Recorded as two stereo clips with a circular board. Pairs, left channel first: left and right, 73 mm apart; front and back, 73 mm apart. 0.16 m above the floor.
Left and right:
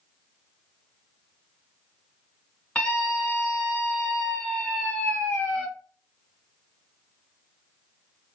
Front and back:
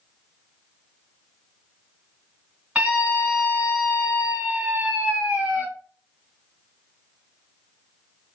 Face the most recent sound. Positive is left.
turn(degrees=130)